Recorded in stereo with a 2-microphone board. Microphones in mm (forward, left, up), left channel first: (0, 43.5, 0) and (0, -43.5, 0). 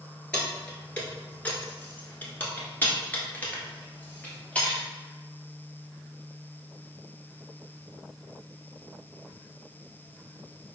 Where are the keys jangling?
10° left (ahead or behind), 1.3 m; by 4.8 s 20° left (ahead or behind), 1.7 m.